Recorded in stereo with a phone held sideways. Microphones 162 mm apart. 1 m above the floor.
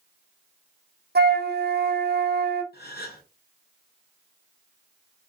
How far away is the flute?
About 0.6 m.